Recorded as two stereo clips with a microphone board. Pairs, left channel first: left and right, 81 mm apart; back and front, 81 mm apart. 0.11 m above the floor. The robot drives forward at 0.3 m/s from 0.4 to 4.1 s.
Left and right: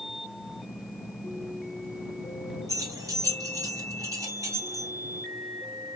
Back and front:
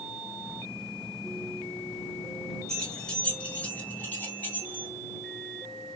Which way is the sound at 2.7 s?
100° right.